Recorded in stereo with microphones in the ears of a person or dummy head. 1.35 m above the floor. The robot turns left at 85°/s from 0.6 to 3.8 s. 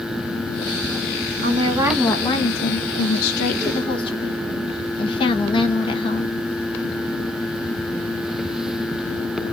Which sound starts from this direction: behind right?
A woman speaking, at 1.4 s.